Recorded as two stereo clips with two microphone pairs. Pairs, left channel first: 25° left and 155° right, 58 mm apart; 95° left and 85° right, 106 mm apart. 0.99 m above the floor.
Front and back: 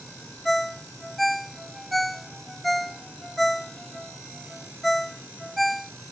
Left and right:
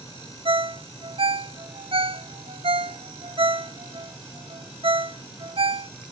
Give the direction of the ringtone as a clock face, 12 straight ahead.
2 o'clock.